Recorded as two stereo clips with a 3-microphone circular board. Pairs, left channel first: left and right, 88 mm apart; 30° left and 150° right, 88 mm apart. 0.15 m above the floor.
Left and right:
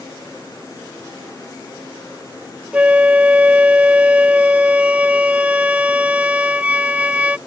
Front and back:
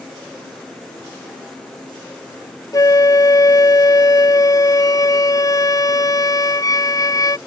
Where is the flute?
15° right.